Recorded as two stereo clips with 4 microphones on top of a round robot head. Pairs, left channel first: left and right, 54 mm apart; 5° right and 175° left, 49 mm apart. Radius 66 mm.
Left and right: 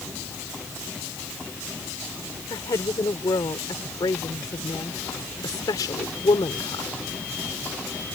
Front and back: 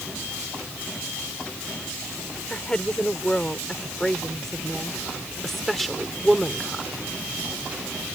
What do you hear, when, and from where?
2.5 s a woman speaking: 65° left; by 6.9 s 90° left